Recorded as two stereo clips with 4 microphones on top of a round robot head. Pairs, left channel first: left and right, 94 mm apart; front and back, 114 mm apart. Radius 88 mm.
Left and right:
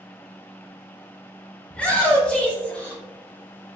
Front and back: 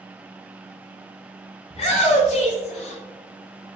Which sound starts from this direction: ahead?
A shout, at 1.7 s.